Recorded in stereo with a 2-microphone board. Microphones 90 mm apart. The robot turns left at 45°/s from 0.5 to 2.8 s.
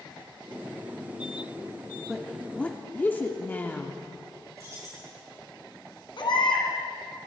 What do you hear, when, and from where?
2.1 s a woman speaking: 175° right, 1.0 m; by 4.0 s 155° left, 1.0 m
4.6 s keys jangling: 35° right (ahead or behind), 5.5 m
6.2 s a baby crying: 60° left (ahead or behind), 2 m